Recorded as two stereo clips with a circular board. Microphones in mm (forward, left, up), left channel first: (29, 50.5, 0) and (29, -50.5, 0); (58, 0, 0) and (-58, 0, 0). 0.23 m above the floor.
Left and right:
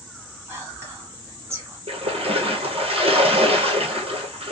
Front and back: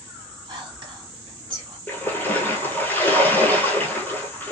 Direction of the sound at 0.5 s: 145° right.